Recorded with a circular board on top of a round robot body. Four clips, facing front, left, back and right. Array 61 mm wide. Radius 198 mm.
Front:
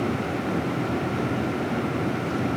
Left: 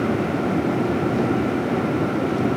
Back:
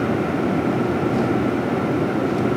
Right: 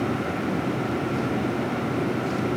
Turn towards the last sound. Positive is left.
No sound to turn to.